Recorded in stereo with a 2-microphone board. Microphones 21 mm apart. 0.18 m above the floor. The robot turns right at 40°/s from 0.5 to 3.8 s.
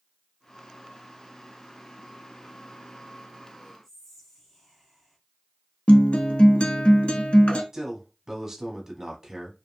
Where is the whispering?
10° left (ahead or behind), 1.4 m.